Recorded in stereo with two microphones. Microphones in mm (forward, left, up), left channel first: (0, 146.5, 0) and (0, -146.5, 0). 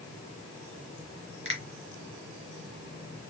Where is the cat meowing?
I don't hear a cat meowing.